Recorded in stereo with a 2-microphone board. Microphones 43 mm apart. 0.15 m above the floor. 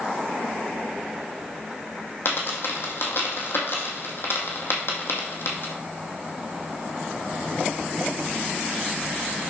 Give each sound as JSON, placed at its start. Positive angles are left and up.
{"t": 2.2, "sound": "a dropped coin", "side_deg": 60, "distance_m": 2.0}